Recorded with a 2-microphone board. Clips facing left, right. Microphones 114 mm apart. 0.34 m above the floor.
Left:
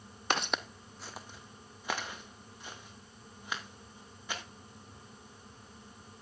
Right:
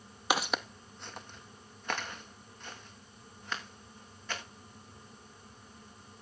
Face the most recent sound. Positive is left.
turn(degrees=10)  # may be behind; listen again after turning